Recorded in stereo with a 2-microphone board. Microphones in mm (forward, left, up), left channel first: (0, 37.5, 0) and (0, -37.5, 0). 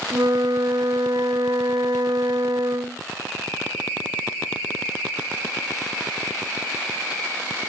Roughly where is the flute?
Right.